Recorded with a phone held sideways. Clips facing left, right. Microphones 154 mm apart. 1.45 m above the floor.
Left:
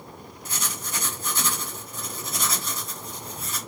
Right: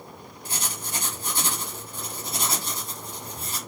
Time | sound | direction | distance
0.5 | writing | 30° right (ahead or behind) | 1.1 m